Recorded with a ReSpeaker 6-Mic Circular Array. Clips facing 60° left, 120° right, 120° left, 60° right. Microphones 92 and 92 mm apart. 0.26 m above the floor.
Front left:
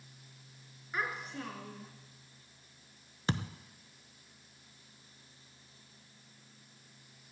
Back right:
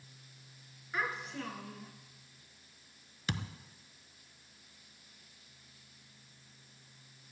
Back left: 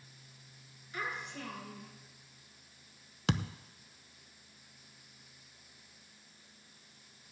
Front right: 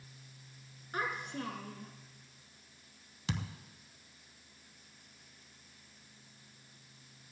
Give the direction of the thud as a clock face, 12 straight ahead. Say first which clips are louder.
Front left 4 dB, back left 6 dB; 8 o'clock.